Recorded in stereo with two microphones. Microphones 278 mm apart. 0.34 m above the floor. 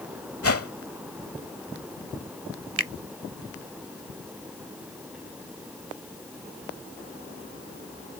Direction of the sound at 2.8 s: 55° right (ahead or behind).